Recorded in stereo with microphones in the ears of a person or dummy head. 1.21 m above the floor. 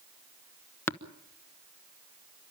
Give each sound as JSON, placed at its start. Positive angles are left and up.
{"t": 0.9, "sound": "tapping", "side_deg": 10, "distance_m": 1.1}